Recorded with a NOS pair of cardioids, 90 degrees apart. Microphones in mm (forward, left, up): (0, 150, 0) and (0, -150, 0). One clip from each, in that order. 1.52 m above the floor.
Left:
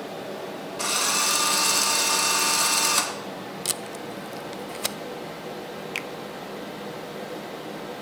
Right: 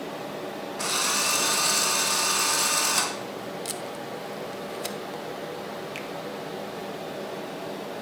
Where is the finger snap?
40° left, 0.7 m.